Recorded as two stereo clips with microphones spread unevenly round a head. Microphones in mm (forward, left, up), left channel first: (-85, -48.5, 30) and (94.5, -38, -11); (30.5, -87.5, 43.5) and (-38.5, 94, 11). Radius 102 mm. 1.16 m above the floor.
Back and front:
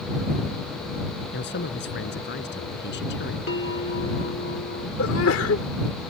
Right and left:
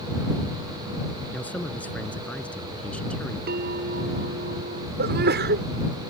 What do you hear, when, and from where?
1.3 s a man speaking: 150° right; by 3.4 s 155° right
3.5 s a bell: 160° left
5.0 s a sneeze: 150° left